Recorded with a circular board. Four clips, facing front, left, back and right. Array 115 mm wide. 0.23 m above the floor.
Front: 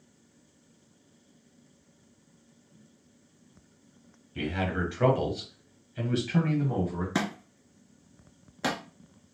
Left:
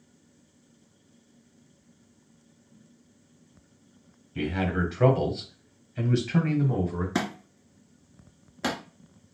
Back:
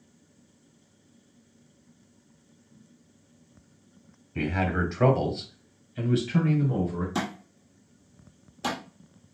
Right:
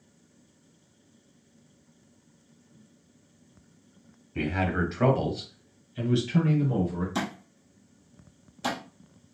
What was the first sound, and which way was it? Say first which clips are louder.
A man speaking: even, back 3 dB; 140° right.